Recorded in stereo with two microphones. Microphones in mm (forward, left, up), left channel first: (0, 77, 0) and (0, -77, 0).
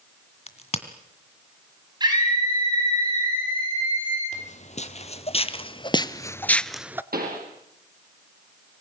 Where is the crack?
40° left (ahead or behind), 1.9 m.